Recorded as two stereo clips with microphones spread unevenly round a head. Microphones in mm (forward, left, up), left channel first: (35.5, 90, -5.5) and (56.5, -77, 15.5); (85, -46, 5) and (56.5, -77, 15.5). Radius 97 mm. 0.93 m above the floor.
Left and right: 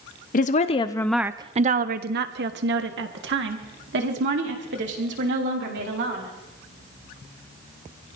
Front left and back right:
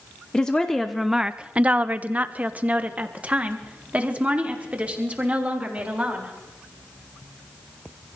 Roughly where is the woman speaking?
Left.